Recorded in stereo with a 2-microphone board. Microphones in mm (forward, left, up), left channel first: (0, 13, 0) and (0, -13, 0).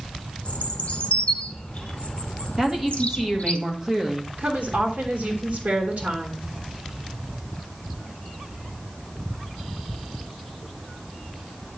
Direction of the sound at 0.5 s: 50° left (ahead or behind).